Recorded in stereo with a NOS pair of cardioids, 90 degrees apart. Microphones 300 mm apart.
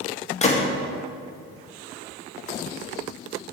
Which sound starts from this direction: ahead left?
A gunshot, at 0.4 s.